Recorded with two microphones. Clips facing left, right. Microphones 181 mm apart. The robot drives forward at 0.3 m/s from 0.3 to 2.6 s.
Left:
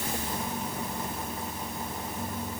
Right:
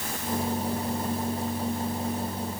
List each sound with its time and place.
Only background noise.